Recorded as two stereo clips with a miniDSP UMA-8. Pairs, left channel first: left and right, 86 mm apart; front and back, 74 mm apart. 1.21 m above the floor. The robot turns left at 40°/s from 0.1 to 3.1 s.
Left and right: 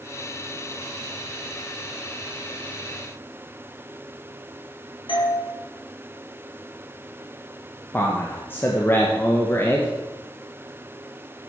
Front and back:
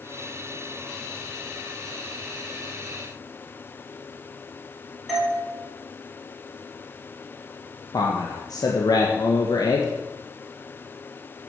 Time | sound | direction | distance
5.1 | a doorbell | 90° left | 4.5 m
7.9 | a man speaking | 25° left | 1.5 m